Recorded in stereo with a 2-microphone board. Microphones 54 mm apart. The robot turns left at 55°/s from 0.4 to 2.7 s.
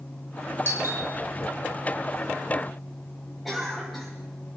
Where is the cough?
5° right (ahead or behind), 7 m.